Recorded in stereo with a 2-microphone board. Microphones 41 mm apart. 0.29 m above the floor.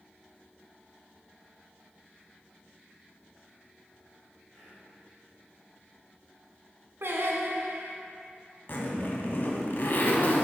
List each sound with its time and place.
4.5 s whispering: 10° left (ahead or behind), 1.7 m
7.0 s singing: 75° right (ahead or behind), 0.8 m
8.7 s a zipper: 55° left (ahead or behind), 0.8 m